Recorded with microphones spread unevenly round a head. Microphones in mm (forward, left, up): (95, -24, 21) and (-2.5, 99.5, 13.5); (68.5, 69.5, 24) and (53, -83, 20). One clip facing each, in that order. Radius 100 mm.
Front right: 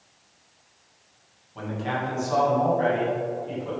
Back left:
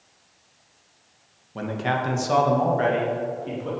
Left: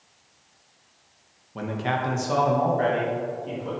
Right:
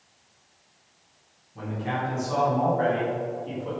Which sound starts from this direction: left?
A man speaking, at 1.6 s.